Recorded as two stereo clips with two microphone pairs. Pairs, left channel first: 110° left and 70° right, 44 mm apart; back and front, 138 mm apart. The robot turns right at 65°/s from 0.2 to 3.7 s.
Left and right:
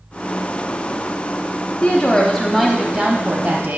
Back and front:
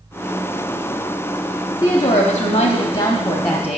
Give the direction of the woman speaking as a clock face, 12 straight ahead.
8 o'clock.